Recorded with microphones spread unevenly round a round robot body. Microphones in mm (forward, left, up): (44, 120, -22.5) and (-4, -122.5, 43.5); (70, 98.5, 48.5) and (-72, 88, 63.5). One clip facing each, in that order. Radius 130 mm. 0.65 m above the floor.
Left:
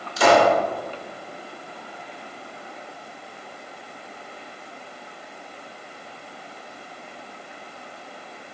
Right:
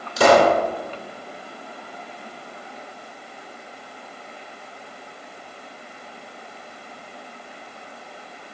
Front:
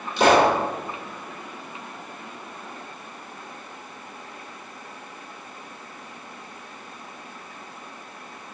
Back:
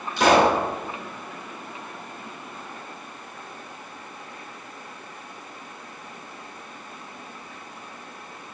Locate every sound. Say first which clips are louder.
0.2 s a pop: right 2 dB, front 1 dB; 65° right, 2.5 m